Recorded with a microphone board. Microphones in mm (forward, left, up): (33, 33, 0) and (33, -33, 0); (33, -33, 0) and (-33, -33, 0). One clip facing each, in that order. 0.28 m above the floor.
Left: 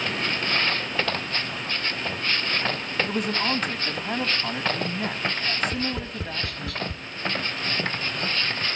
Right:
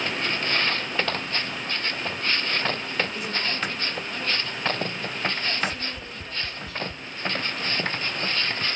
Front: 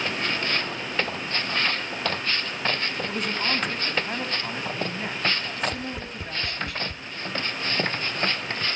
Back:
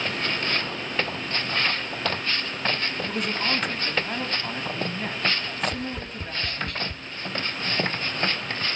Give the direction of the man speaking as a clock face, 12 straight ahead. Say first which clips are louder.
Left 4 dB, back 1 dB; 9 o'clock.